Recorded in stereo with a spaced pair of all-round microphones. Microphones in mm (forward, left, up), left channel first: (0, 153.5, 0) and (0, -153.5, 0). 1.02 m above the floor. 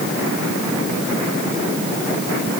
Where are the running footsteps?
No running footsteps in this recording.